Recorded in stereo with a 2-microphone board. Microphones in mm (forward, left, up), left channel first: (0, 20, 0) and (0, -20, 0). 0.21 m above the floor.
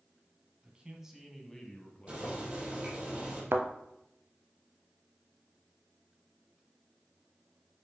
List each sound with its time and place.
0.6 s a man speaking: 30° right (ahead or behind), 1.5 m; by 3.1 s 55° left (ahead or behind), 2 m
2.1 s boiling: 30° right (ahead or behind), 3.5 m
3.5 s a thud: 70° right (ahead or behind), 0.8 m